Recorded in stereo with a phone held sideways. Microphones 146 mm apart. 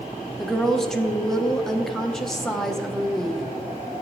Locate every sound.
0.4 s a woman speaking: 5° left (ahead or behind), 0.8 m